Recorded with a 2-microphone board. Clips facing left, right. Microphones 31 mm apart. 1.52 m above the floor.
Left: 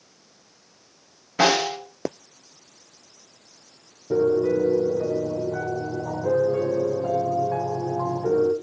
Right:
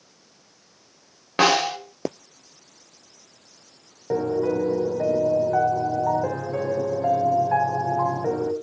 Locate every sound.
1.4 s a snare drum: 60° right (ahead or behind), 8 m
4.1 s a piano: 70° right (ahead or behind), 3 m